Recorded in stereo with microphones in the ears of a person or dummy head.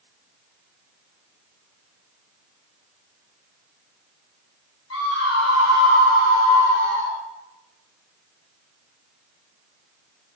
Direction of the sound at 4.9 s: 90° left.